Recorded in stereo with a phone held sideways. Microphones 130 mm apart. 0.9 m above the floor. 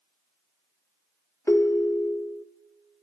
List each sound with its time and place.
1.5 s a ringtone: 20° left (ahead or behind), 0.5 m